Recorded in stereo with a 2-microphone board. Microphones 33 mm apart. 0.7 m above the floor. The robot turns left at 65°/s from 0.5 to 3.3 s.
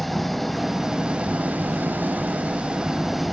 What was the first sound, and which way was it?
An engine running, 5° left.